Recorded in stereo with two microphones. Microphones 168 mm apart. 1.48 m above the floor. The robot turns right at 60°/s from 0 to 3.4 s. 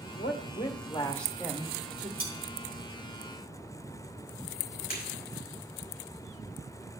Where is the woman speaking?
110° left, 1.7 m; by 2.1 s 135° right, 1.7 m.